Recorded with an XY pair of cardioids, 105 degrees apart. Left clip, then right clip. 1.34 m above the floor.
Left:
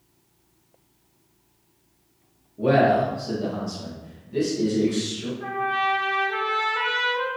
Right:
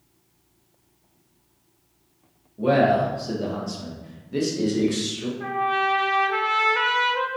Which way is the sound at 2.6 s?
5° left.